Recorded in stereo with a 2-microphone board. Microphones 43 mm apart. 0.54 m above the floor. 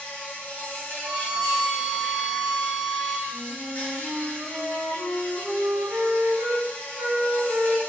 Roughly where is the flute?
Right.